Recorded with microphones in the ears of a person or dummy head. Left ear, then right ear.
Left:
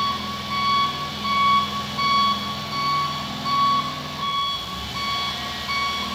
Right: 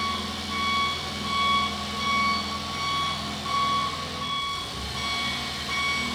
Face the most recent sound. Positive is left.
turn(degrees=70)  # may be behind; listen again after turning